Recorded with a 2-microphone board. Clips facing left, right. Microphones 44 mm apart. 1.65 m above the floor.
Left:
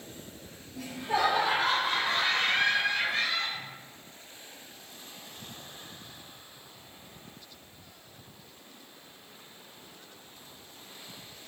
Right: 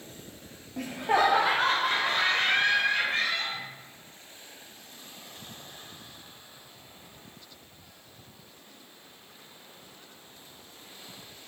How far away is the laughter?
About 0.6 m.